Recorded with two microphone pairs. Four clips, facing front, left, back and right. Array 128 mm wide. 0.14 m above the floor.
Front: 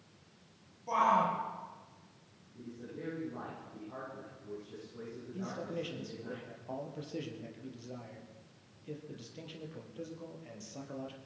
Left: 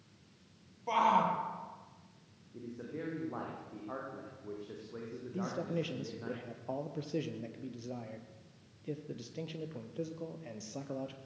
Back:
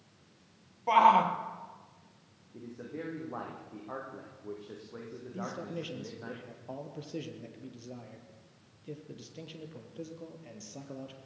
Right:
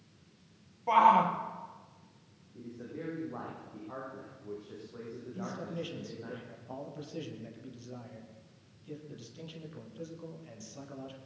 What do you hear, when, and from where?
0.9 s a shout: 165° right, 4 m
2.5 s a man speaking: 155° left, 8 m
5.3 s a man speaking: 90° left, 4 m